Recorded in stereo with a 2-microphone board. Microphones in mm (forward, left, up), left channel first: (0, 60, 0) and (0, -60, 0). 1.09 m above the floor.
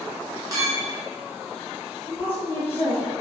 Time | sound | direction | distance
0.5 | a clink | 30° right (ahead or behind) | 0.8 m
2.1 | a woman speaking | 15° left (ahead or behind) | 1.3 m